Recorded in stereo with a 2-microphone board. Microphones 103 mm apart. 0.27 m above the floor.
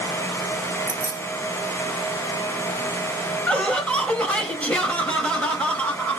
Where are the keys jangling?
15° right (ahead or behind), 2 m.